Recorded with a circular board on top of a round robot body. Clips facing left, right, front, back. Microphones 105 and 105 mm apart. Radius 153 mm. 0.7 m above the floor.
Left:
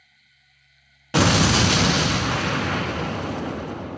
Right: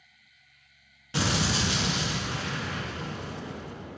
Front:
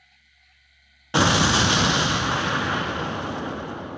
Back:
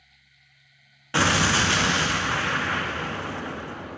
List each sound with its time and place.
1.1 s an explosion: 70° left, 0.6 m